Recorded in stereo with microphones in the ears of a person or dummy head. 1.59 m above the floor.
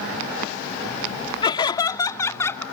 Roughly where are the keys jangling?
No keys jangling in this recording.